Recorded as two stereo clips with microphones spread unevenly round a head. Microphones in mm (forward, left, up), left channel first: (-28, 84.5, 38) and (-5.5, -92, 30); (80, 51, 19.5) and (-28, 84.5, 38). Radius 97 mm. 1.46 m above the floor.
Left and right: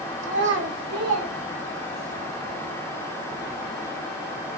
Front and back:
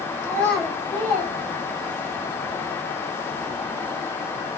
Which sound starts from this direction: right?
A child speaking, at 0.2 s.